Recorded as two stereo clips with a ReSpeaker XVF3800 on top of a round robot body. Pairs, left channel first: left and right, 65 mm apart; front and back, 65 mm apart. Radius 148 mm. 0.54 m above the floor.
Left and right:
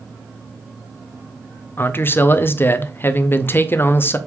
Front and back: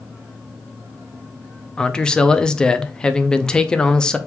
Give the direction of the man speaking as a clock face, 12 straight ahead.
10 o'clock.